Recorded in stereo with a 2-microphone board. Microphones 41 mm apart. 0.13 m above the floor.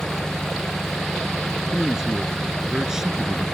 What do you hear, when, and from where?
0.0 s an engine running: 15° left (ahead or behind)
1.7 s a man speaking: 15° right (ahead or behind)